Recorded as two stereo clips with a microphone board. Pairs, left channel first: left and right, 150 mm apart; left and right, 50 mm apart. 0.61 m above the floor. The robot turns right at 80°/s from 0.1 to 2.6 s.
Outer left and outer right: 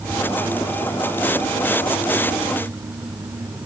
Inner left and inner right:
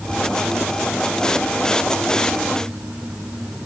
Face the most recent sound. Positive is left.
No sound to turn to.